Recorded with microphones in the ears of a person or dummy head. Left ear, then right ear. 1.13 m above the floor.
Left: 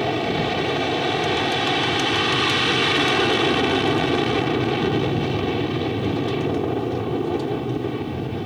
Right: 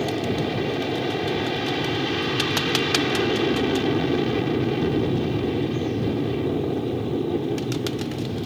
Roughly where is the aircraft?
Left.